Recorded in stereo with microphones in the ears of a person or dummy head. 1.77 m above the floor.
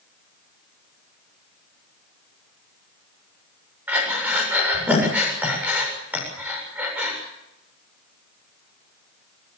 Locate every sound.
3.9 s breathing: 15° right (ahead or behind), 7.5 m